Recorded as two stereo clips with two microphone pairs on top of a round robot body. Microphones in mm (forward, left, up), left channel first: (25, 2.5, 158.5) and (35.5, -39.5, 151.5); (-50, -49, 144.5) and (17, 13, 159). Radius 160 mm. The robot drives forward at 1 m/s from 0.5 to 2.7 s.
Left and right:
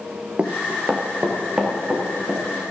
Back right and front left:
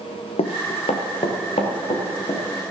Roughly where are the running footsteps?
Behind right.